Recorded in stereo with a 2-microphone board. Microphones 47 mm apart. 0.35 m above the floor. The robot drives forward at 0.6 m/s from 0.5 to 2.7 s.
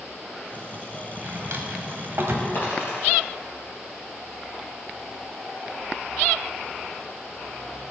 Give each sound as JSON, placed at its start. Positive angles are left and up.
{"t": 1.2, "sound": "a drawer", "side_deg": -50, "distance_m": 1.1}
{"t": 2.5, "sound": "a dropped coin", "side_deg": 50, "distance_m": 3.0}